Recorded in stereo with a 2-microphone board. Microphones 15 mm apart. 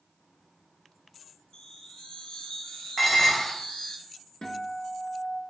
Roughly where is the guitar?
Left.